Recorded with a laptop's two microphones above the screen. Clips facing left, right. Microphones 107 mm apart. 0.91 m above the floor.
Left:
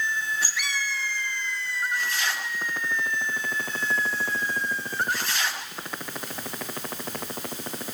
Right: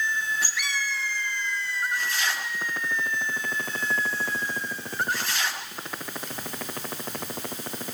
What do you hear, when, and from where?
Only background noise.